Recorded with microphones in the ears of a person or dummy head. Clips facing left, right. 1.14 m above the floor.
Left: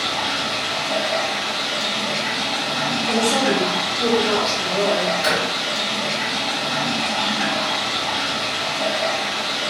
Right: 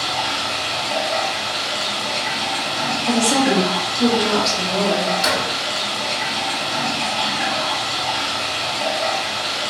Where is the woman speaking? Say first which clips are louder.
Right 2 dB; 60° right (ahead or behind), 0.9 m.